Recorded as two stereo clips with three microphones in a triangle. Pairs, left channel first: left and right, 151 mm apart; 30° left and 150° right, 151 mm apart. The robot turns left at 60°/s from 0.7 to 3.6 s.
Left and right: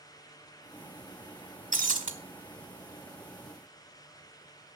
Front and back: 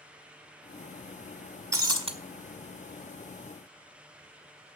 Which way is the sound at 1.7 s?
80° right.